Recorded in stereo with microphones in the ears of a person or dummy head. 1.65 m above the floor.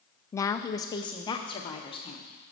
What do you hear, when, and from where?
0.3 s a woman speaking: 15° left (ahead or behind), 0.5 m; by 2.2 s 30° left (ahead or behind), 1.5 m